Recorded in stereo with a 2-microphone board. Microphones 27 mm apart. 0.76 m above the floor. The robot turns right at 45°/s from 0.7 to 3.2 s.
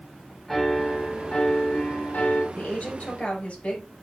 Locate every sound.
0.5 s a piano: 10° left, 2 m; by 2.5 s 90° left, 2 m
2.5 s a woman speaking: 80° left, 5.5 m; by 3.9 s 55° left (ahead or behind), 5.5 m